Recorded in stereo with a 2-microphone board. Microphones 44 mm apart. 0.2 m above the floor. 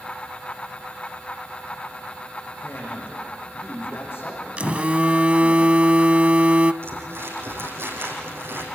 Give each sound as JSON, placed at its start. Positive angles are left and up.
{"t": 2.6, "sound": "a man speaking", "side_deg": 60, "distance_m": 9.0}
{"t": 4.6, "sound": "a phone buzzing", "side_deg": -30, "distance_m": 0.8}
{"t": 6.8, "sound": "crumpling", "side_deg": -70, "distance_m": 6.0}